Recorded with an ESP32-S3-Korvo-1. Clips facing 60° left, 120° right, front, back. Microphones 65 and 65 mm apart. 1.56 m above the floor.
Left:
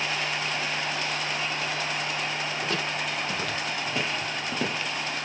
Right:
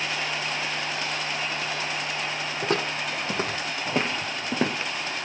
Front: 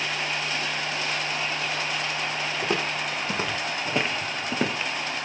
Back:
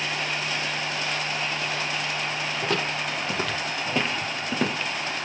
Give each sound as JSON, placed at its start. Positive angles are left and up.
{"t": 2.6, "sound": "footsteps", "azimuth_deg": -75, "distance_m": 3.0}